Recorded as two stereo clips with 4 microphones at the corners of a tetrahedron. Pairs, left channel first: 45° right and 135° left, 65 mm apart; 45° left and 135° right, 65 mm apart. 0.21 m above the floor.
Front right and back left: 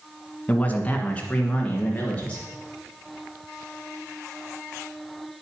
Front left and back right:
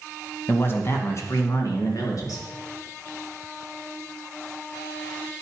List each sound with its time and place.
0.5 s a man speaking: 10° left, 1.5 m; by 2.5 s 25° left, 3.5 m